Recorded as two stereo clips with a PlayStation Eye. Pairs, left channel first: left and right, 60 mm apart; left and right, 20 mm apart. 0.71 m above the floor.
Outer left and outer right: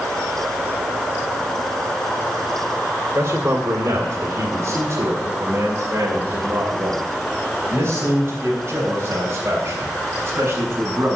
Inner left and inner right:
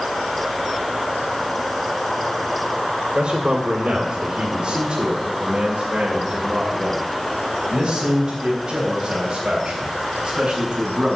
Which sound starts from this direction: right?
A man speaking, at 3.1 s.